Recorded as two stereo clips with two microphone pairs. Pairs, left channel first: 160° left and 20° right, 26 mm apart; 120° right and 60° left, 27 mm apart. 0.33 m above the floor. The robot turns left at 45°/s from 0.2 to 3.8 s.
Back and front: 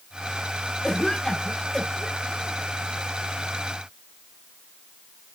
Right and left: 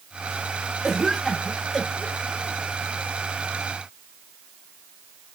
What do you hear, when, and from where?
0.8 s a cough: 130° left, 0.9 m; by 2.6 s 55° left, 0.9 m